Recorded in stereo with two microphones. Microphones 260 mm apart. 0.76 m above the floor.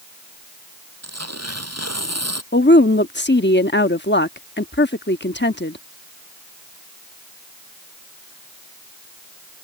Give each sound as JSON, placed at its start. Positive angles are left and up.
{"t": 1.0, "sound": "tearing paper", "side_deg": -75}
{"t": 2.5, "sound": "a woman speaking", "side_deg": 45}